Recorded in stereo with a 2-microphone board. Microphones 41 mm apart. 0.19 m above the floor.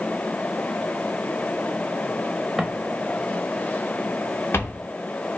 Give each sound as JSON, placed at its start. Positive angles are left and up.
{"t": 2.6, "sound": "footsteps", "side_deg": -5, "distance_m": 1.3}